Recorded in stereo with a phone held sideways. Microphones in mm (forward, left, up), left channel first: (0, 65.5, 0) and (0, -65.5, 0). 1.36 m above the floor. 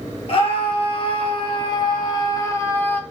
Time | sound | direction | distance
0.3 | a scream | 50° left (ahead or behind) | 4 m